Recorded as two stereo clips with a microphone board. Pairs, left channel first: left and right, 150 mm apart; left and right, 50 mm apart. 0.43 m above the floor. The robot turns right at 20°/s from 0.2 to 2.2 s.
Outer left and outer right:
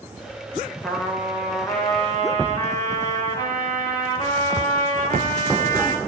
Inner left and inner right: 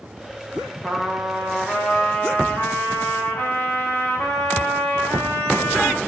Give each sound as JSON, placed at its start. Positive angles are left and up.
{"t": 0.8, "sound": "a trumpet", "side_deg": 0, "distance_m": 9.5}